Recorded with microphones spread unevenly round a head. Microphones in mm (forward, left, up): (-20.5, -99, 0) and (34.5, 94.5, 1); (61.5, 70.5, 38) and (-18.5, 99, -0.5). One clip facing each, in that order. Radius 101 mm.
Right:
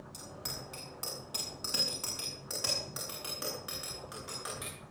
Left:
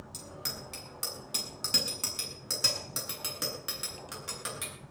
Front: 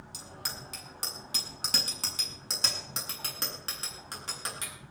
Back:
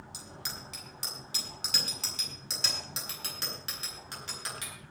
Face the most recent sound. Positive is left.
turn(degrees=20)